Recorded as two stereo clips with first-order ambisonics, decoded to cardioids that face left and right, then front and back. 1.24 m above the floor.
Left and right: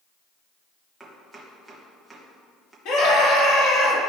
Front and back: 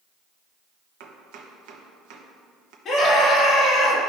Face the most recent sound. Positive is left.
turn(degrees=65)